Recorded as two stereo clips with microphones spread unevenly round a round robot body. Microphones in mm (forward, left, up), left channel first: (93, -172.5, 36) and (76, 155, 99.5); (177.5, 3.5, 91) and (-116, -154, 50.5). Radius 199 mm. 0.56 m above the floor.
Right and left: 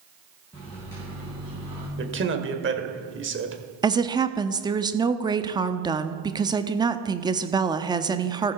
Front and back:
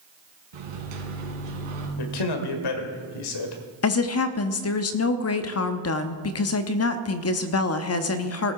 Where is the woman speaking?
5° left, 1.0 m.